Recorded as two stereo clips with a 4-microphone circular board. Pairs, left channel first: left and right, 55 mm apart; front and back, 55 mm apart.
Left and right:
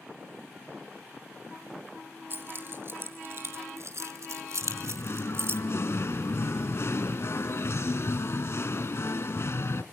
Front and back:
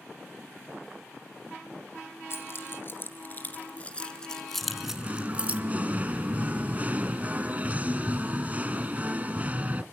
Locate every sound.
2.3 s keys jangling: 40° right, 2.5 m; by 5.6 s 125° right, 1.5 m
4.6 s singing: 120° left, 0.8 m